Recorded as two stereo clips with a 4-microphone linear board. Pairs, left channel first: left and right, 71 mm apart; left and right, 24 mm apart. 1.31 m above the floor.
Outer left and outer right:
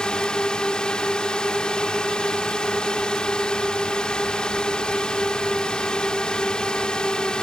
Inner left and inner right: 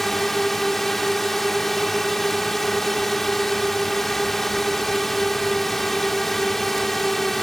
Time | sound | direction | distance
0.0 | a drone | 15° left (ahead or behind) | ?